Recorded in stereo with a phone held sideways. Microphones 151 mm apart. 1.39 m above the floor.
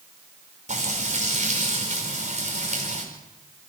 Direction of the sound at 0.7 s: 50° right (ahead or behind).